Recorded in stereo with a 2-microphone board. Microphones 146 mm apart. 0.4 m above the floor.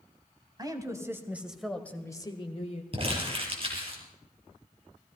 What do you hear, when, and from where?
0.6 s a woman speaking: 25° right (ahead or behind), 2 m; by 2.8 s 50° left (ahead or behind), 1.5 m
2.9 s crumpling: 40° right (ahead or behind), 4.5 m